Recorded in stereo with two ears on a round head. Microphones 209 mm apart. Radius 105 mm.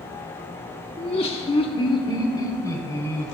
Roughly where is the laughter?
Left.